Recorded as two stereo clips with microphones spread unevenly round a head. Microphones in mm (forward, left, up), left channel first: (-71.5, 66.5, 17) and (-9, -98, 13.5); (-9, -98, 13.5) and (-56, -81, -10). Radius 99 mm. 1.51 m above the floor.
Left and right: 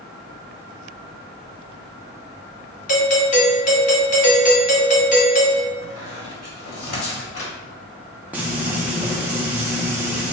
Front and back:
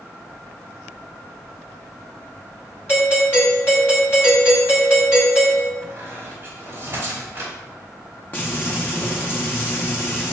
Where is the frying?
15° left, 0.5 m.